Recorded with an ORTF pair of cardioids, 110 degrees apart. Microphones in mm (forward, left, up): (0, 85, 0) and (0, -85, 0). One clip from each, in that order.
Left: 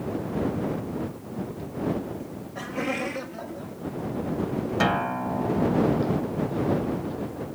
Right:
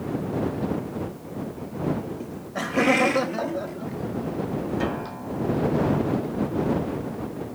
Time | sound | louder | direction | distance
2.2 | laughter | right 5 dB | 25° right | ?
4.8 | a guitar | left 5 dB | 60° left | ?